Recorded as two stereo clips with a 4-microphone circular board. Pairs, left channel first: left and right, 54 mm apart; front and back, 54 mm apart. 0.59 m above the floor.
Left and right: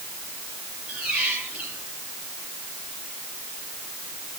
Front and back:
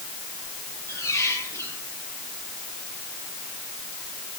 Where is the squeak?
25° right, 8 m.